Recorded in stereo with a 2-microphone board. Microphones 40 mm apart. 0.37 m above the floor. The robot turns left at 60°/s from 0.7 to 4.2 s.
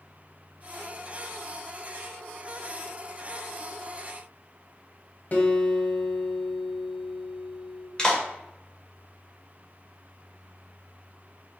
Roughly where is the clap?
Centre.